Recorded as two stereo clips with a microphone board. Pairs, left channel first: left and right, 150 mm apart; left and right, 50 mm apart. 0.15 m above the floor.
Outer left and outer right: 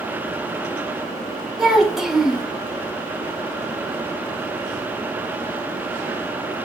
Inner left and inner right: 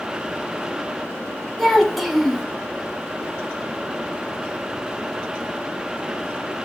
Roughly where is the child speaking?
Centre.